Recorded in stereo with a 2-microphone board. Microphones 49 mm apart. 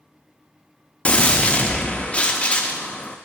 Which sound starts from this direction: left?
A gunshot, at 1.1 s.